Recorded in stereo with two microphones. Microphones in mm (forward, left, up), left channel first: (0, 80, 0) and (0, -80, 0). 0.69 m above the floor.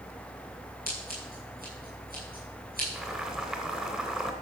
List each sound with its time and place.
0.9 s scissors: 65° right (ahead or behind), 7.5 m
3.0 s boiling: 5° right (ahead or behind), 2.5 m